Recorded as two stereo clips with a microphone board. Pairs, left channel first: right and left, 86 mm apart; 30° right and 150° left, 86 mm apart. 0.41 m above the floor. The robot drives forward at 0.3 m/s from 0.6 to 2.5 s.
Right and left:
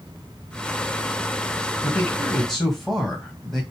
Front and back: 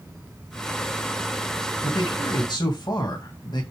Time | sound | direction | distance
1.8 | a man speaking | 5° right | 2.5 m